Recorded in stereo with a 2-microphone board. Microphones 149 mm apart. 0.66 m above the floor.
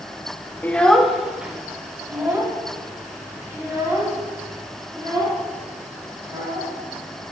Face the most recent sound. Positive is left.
turn(degrees=-25)  # may be behind; listen again after turning